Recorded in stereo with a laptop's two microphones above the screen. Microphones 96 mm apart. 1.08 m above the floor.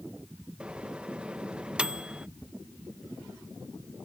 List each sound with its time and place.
0.6 s a microwave: 10° right (ahead or behind)